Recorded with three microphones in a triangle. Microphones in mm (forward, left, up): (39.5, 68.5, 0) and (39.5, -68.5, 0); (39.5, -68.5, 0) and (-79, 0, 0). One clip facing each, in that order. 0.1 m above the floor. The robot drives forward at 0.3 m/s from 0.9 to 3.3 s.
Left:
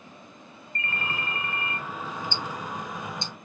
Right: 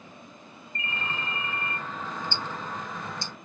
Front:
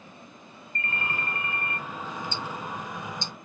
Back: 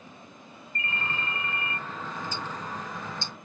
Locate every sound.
0.8 s a ringtone: 25° right, 0.7 m; by 1.8 s 50° right, 0.5 m
2.3 s ticking: 20° left, 1.1 m; by 3.3 s 30° left, 0.9 m